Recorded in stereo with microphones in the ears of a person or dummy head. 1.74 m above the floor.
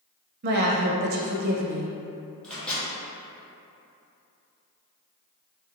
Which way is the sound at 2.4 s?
5° left (ahead or behind).